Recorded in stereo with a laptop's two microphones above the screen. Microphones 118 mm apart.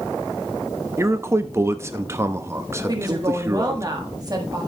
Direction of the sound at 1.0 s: 25° right (ahead or behind).